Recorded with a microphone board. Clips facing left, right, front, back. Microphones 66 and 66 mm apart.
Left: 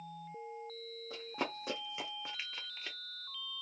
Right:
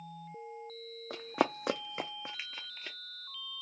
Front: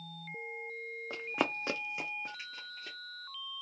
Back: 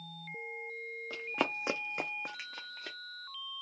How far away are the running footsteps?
About 0.7 m.